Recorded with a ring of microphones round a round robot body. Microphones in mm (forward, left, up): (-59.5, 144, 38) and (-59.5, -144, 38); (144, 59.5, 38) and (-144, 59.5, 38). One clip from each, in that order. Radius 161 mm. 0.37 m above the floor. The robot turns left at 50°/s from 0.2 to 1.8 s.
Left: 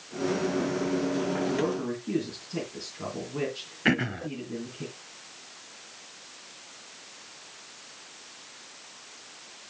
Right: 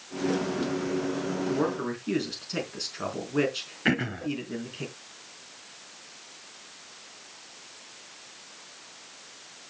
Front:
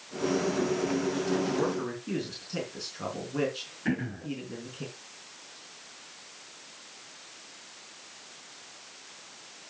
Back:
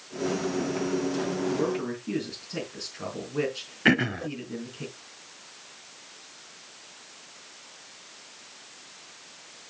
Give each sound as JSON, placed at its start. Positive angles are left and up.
{"t": 1.5, "sound": "a man speaking", "azimuth_deg": -65, "distance_m": 4.5}
{"t": 3.9, "sound": "throat clearing", "azimuth_deg": 175, "distance_m": 0.6}